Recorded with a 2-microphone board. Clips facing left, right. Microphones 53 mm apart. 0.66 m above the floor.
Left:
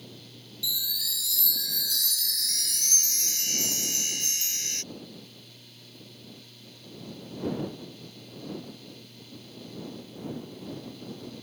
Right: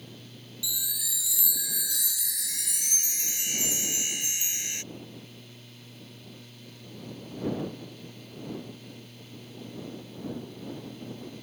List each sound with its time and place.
0.6 s a chime: 15° right (ahead or behind)